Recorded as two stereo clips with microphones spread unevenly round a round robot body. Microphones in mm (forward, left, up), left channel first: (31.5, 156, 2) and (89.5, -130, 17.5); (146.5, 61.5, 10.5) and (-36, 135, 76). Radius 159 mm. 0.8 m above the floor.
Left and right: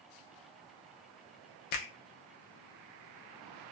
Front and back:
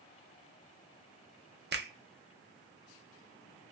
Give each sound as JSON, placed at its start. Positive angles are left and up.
{"t": 1.7, "sound": "a finger snap", "azimuth_deg": 110, "distance_m": 0.7}